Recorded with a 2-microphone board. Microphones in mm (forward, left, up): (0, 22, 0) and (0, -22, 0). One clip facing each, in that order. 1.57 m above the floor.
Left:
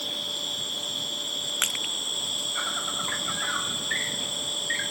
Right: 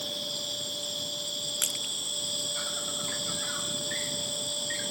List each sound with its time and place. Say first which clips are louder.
0.0 s an insect: left 3 dB; 40° left (ahead or behind)
1.6 s crushing: left 6 dB; 45° left (ahead or behind)